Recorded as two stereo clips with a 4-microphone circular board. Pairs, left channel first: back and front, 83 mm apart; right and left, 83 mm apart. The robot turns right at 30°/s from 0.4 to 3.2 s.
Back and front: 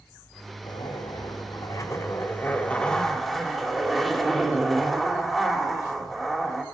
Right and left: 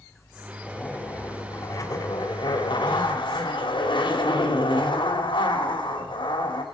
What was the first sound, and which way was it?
A zipper, 165° right.